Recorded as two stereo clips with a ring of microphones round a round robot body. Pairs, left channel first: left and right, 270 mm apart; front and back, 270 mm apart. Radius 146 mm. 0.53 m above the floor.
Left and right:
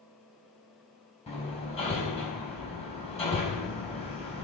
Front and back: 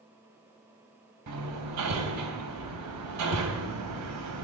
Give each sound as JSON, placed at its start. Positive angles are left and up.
{"t": 1.3, "sound": "hammering", "azimuth_deg": 160, "distance_m": 3.5}